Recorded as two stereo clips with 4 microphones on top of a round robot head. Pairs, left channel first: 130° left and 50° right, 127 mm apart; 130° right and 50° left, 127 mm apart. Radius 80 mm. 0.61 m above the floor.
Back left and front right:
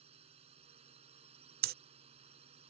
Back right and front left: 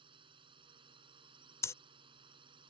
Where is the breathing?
60° right.